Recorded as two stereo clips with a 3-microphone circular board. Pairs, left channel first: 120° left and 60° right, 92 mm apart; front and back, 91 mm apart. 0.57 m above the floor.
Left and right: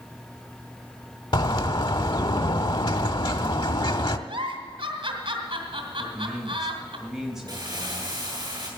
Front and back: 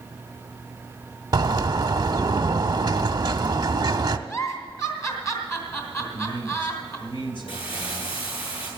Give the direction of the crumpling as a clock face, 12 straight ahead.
1 o'clock.